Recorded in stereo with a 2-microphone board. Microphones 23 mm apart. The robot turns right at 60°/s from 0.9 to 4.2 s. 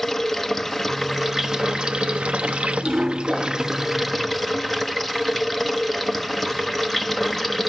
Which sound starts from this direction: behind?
Running water, at 0.0 s.